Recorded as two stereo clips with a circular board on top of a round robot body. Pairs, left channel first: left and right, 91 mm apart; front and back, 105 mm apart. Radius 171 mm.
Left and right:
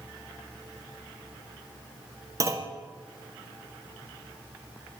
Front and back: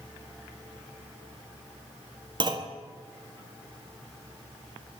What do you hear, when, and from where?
2.4 s a clunk: 140° right, 1.7 m